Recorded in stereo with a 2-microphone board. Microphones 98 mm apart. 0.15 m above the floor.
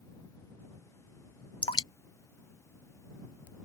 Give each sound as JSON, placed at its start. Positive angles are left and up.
{"t": 1.6, "sound": "dripping", "side_deg": 65}